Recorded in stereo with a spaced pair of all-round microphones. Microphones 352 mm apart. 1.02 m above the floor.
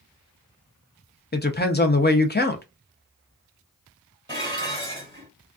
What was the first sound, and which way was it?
A woman speaking, 30° left (ahead or behind).